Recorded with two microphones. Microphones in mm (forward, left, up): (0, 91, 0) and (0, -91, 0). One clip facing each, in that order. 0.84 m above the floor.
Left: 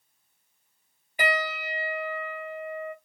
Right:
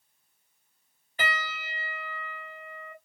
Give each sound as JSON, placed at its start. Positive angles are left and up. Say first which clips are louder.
{"t": 1.2, "sound": "a piano", "louder": "left 7 dB", "side_deg": 15, "distance_m": 1.4}